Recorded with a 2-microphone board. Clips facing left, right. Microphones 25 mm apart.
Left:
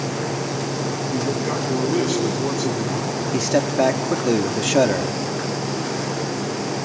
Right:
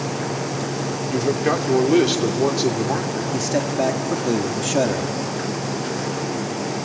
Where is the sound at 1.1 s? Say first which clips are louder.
Right 5 dB; 65° right (ahead or behind), 2.5 m.